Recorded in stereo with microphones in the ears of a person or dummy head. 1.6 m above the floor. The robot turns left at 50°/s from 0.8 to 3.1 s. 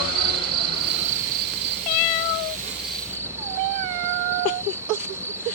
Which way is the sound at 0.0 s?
50° right.